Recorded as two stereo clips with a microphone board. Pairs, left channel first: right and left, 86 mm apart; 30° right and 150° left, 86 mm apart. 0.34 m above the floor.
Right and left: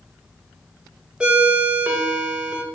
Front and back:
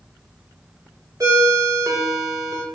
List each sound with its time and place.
1.2 s a ringtone: 160° left, 0.5 m